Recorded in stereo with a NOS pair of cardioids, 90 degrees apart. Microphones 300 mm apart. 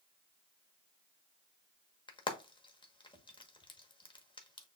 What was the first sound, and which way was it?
Frying, 15° left.